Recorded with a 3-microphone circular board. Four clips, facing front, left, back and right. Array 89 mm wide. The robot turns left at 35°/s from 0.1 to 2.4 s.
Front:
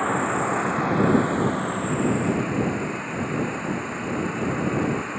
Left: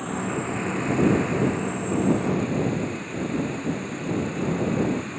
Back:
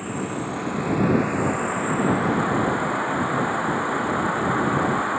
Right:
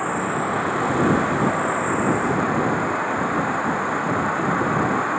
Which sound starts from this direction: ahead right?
An insect, at 0.0 s.